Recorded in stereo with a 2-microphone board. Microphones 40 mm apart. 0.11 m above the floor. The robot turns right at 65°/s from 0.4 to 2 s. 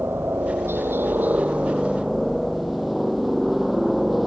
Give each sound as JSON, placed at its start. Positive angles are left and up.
{"t": 0.0, "sound": "a helicopter", "azimuth_deg": -110}